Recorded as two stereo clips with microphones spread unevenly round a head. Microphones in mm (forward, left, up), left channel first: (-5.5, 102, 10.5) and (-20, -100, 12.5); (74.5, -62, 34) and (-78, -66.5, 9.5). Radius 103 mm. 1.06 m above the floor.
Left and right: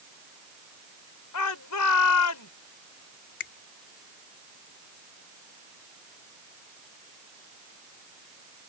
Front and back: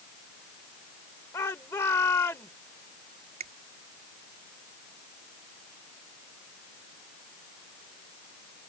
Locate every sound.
1.3 s a shout: 80° left
3.4 s a finger snap: 125° left